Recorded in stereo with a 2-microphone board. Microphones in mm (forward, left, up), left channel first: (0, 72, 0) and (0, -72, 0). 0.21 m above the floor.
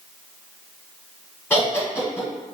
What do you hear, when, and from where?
1.5 s laughter: 20° left (ahead or behind), 1.8 m